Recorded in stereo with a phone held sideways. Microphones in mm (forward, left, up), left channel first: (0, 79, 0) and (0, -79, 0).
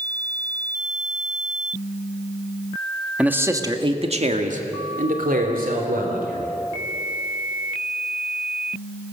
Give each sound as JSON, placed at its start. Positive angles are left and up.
{"t": 3.2, "sound": "a man speaking", "side_deg": -10, "distance_m": 1.8}